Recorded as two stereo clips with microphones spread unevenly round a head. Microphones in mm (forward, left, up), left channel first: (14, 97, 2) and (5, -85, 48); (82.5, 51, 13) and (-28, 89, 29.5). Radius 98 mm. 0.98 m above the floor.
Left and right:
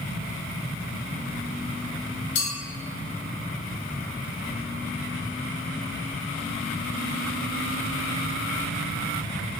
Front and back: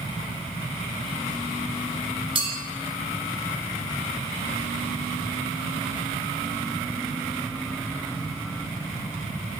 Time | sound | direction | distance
2.4 | a clink | 115° left | 1.2 m